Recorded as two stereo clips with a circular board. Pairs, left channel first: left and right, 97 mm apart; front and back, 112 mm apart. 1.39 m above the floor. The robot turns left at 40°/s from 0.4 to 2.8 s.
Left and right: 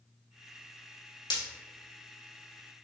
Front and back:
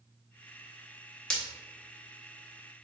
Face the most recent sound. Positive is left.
turn(degrees=20)